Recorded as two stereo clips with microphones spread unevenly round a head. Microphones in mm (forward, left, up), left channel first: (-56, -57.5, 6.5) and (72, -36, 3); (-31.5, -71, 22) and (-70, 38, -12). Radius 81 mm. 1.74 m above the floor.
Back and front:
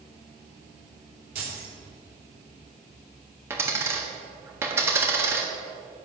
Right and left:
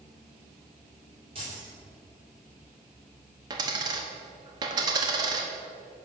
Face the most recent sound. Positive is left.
turn(degrees=60)